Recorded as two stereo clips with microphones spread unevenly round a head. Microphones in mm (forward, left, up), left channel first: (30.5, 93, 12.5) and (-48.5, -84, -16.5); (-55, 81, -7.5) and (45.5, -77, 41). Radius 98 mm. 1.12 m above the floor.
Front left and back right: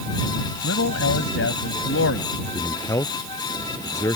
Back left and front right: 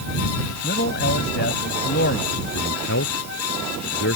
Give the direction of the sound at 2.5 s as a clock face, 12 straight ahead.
7 o'clock.